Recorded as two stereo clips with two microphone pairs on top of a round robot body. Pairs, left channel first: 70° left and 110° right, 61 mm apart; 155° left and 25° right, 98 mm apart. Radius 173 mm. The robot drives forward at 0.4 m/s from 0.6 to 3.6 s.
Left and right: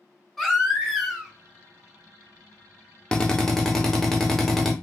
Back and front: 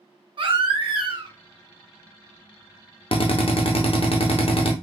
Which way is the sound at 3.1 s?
145° left.